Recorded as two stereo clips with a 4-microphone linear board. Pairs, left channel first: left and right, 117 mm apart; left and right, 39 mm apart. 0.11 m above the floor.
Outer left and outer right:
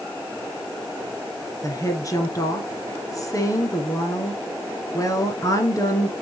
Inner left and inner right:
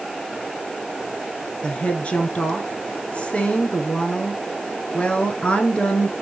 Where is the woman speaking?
30° left (ahead or behind), 1.5 m.